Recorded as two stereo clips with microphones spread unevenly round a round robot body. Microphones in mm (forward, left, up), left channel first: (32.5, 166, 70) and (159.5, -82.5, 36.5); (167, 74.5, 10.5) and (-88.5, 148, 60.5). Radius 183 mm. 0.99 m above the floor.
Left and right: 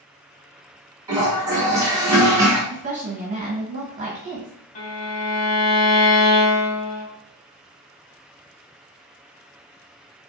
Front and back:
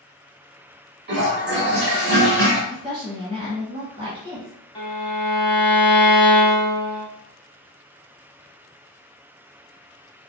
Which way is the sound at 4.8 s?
60° left.